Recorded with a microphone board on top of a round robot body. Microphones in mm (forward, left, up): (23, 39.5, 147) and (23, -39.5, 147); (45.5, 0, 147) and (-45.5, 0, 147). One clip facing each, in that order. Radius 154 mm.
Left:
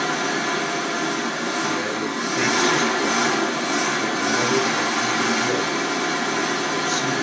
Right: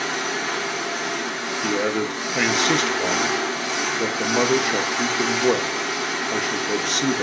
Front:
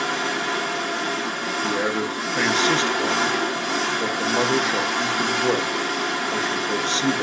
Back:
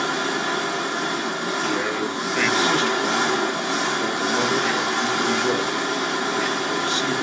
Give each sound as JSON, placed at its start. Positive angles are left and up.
{"t": 0.0, "sound": "an engine running", "azimuth_deg": 110, "distance_m": 1.6}
{"t": 1.6, "sound": "a man speaking", "azimuth_deg": -65, "distance_m": 0.7}